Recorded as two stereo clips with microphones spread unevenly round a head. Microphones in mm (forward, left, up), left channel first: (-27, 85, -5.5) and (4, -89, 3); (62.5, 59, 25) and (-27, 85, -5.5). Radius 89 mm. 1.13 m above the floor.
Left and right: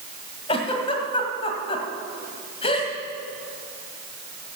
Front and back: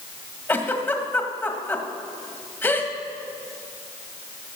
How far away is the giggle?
About 1.7 m.